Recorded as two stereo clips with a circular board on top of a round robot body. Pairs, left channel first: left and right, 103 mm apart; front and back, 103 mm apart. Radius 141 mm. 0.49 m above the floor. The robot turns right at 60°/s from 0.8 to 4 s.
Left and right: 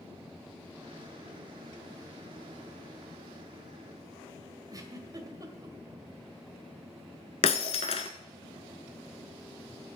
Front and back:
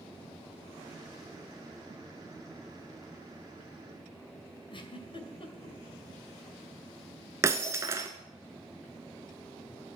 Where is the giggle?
35° right, 2 m.